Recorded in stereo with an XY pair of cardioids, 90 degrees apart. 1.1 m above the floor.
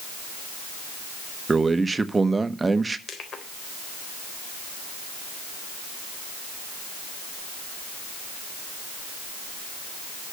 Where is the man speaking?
25° right, 1.3 m.